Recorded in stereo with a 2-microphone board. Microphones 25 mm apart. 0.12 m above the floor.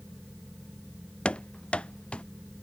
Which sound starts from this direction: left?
Running footsteps, at 1.2 s.